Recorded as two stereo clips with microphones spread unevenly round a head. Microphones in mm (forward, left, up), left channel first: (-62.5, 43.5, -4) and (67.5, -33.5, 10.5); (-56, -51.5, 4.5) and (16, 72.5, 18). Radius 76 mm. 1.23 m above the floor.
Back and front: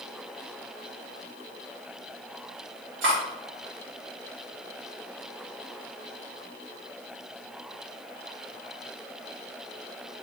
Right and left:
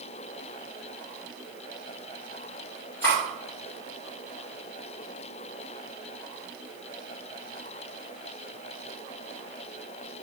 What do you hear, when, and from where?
3.0 s cutlery clinking: 40° right, 1.9 m